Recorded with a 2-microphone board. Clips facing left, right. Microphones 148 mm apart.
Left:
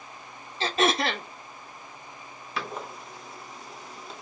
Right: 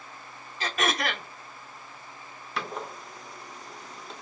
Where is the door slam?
Centre (ahead or behind), 0.5 m.